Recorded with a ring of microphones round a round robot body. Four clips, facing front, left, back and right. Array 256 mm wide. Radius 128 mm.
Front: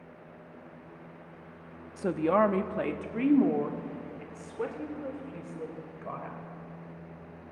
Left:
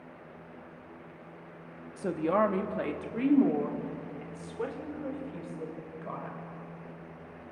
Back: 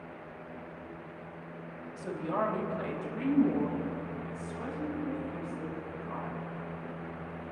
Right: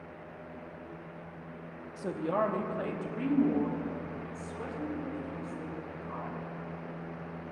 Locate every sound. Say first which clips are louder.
2.0 s a woman speaking: left 4 dB, front 8 dB; 20° left, 0.8 m; by 6.4 s 35° left, 3 m